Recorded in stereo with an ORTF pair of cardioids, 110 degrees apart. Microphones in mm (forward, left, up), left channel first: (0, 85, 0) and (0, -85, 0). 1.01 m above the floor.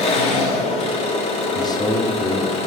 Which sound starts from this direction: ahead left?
An engine running, at 0.0 s.